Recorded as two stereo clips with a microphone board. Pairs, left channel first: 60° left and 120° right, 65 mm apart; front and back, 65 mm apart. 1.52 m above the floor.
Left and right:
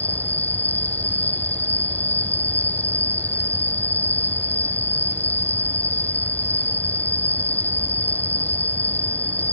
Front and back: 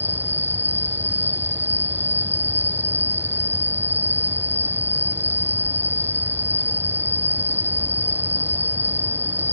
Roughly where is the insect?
Behind left.